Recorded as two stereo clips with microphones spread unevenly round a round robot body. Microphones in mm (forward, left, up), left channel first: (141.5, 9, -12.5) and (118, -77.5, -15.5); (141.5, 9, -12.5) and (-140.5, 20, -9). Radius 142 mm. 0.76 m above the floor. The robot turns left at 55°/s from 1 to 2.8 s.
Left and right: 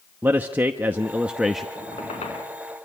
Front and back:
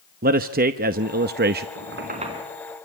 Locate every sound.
0.2 s a man speaking: 160° right, 0.8 m; by 1.6 s 165° left, 0.8 m
1.8 s a squeak: 135° left, 4 m; by 2.5 s 95° left, 4 m